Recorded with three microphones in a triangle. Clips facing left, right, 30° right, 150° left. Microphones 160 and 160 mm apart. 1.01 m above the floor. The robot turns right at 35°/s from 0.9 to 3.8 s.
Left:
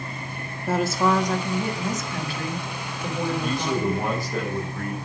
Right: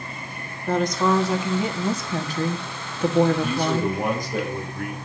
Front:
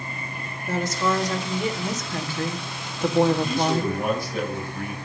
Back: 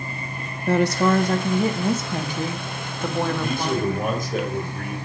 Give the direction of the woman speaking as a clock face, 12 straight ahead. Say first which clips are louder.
Right 1 dB, back 6 dB; 6 o'clock.